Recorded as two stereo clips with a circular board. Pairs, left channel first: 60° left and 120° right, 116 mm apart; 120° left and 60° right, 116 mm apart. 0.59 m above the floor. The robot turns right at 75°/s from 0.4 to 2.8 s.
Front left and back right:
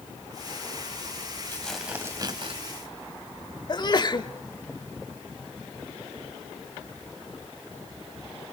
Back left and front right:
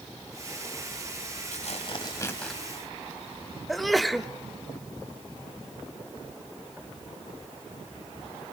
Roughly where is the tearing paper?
Behind left.